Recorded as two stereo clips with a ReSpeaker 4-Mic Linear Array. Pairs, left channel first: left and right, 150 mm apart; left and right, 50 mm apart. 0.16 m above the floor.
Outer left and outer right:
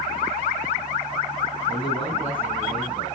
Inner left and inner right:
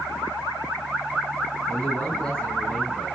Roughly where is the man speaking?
Centre.